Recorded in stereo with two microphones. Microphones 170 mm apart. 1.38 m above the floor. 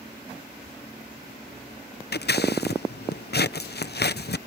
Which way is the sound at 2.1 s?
65° left (ahead or behind).